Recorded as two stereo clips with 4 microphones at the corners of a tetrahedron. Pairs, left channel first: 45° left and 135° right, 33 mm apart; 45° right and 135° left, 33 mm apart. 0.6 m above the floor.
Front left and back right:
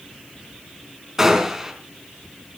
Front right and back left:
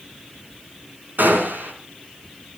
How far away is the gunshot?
About 4.5 m.